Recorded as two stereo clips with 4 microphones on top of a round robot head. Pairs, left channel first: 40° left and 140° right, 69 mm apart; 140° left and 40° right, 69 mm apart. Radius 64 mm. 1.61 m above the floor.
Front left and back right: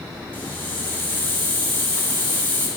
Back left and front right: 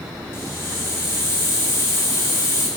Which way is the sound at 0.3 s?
100° left.